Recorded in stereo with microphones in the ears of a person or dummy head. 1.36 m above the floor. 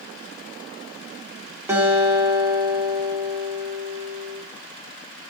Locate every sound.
1.7 s a guitar: 15° right (ahead or behind), 1.6 m